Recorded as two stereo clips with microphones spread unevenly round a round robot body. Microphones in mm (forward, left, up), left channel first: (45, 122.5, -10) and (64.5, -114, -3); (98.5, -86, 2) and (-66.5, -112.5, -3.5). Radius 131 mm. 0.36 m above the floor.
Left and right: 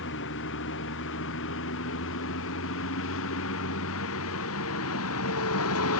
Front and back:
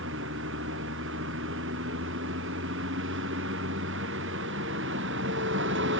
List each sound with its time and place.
0.0 s a vehicle: 145° left; by 6.0 s 140° left